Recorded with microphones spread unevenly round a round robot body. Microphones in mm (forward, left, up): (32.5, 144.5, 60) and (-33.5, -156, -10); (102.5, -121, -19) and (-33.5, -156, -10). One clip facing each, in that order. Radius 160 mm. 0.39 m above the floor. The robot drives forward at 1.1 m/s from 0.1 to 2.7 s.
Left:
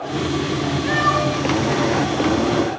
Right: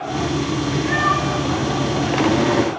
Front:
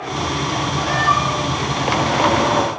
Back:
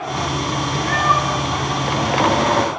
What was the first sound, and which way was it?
A cat meowing, 45° left.